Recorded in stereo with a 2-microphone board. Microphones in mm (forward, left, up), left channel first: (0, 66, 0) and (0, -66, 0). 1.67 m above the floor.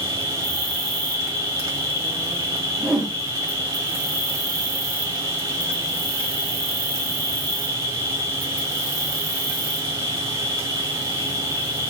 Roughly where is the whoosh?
Centre.